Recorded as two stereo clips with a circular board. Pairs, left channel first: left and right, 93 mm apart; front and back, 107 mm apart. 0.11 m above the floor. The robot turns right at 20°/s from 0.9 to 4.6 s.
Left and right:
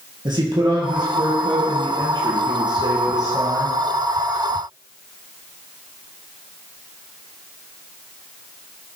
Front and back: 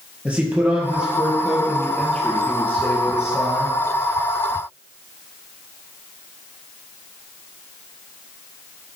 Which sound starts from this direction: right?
A man speaking, at 0.2 s.